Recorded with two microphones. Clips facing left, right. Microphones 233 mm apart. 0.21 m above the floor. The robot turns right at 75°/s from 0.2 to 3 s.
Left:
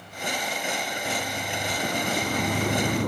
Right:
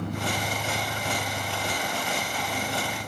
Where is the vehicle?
75° right (ahead or behind); by 3.1 s 70° left (ahead or behind).